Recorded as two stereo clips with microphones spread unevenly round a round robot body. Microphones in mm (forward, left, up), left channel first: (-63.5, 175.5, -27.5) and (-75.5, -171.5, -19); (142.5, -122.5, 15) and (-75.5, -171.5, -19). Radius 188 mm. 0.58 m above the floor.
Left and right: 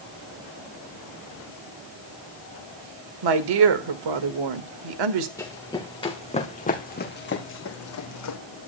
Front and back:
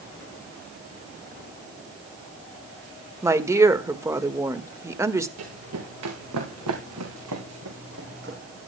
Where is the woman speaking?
95° right, 1.6 m.